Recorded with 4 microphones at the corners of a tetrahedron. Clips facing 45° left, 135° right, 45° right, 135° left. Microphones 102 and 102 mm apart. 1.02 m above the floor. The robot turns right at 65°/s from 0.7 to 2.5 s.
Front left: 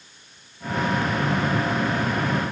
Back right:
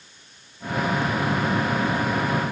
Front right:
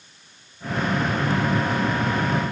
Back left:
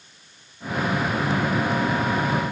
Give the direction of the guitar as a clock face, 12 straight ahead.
No guitar in this recording.